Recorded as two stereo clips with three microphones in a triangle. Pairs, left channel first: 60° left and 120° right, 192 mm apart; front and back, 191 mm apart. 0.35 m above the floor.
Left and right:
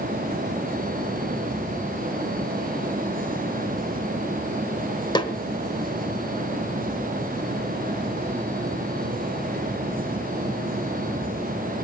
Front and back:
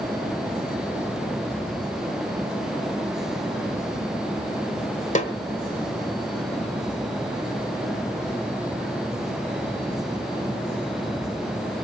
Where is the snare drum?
10° left, 1.5 m.